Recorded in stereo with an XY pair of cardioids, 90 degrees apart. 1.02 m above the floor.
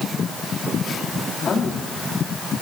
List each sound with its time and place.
1.5 s a woman speaking: 55° left, 2 m